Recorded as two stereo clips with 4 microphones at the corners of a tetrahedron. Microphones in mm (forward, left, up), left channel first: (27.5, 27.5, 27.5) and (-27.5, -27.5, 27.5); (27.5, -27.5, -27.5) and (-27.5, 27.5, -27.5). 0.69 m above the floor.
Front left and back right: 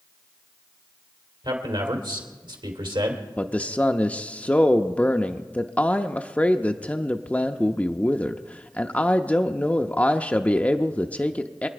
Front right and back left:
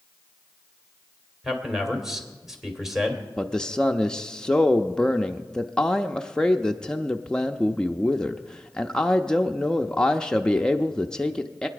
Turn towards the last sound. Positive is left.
turn(degrees=10)